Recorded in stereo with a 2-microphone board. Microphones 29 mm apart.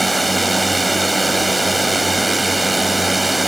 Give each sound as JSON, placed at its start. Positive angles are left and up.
{"t": 0.0, "sound": "a drone", "side_deg": 0}